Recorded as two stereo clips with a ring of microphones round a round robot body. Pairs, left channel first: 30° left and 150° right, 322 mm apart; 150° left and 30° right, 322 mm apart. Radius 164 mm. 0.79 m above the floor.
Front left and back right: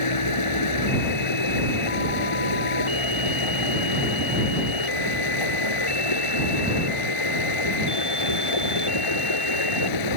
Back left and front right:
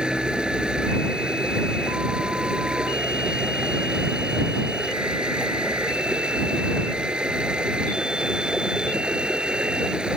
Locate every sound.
0.0 s running water: 60° left